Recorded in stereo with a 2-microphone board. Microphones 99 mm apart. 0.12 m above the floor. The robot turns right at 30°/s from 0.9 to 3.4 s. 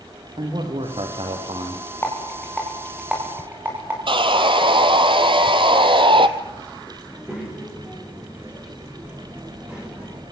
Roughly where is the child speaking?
Centre.